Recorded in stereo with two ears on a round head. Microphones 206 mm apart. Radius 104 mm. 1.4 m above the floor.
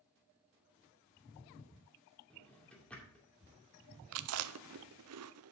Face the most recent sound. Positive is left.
turn(degrees=-65)  # may be behind; listen again after turning